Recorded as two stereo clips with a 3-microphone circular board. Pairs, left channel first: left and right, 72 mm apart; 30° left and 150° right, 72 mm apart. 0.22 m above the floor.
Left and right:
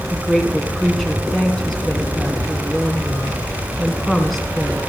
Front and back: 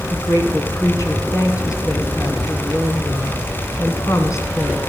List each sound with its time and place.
0.1 s a woman speaking: 5° left, 2.5 m